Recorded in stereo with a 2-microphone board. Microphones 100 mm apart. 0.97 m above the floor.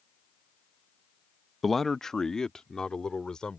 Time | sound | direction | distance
1.6 | a man speaking | centre (ahead or behind) | ?